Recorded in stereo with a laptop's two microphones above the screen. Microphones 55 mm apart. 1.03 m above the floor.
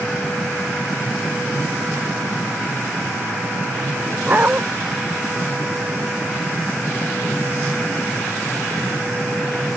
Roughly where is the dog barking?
Right.